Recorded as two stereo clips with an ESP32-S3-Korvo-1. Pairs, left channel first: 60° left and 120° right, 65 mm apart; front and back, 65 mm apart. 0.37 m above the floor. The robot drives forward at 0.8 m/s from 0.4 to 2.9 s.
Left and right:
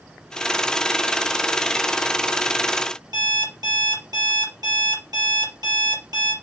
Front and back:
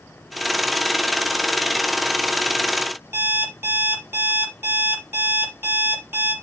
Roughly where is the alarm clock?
Behind right.